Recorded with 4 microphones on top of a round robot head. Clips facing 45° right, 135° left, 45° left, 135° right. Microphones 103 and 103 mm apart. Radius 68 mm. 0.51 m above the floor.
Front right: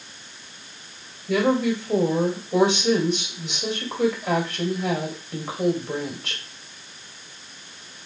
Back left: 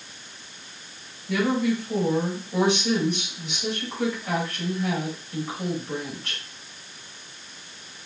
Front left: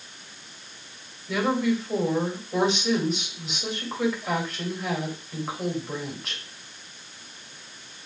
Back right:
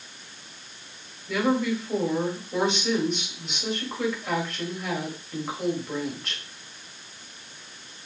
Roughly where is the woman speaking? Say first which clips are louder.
Front right 3 dB, even; ahead right.